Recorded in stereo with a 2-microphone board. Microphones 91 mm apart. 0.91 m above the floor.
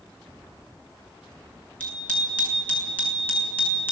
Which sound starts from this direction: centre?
A bicycle bell, at 1.8 s.